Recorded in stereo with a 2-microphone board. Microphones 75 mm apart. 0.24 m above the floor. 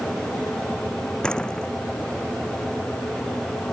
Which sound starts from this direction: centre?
A door slam, at 1.2 s.